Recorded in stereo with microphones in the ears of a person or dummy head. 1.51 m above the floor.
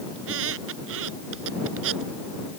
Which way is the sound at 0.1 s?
80° right.